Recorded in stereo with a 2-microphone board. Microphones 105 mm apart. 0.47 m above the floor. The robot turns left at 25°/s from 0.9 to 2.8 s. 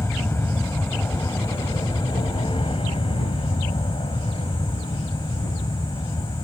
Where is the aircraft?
155° left; by 6.5 s 105° left.